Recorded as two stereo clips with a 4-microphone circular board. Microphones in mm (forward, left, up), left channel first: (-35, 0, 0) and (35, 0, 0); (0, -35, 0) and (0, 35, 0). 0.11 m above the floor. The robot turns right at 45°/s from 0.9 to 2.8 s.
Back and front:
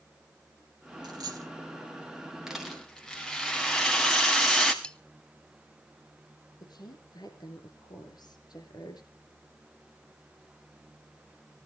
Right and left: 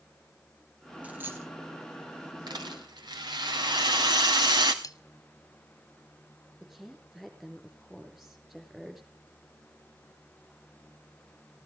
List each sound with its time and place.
1.0 s a dropped coin: 20° left, 2.5 m; by 1.5 s 40° left, 2.5 m
2.5 s a rattle: 80° left, 2.5 m; by 4.7 s 100° left, 2.5 m
4.8 s cutlery clinking: 105° right, 1.1 m
6.6 s a woman speaking: 175° left, 5.5 m